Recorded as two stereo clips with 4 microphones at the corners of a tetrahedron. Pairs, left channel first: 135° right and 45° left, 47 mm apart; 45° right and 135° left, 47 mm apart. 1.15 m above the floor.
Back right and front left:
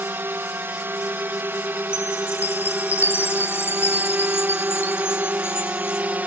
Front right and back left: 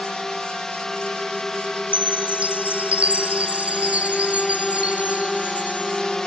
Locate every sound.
0.0 s a drone: 35° left; by 6.3 s 30° left
1.9 s a chime: 165° right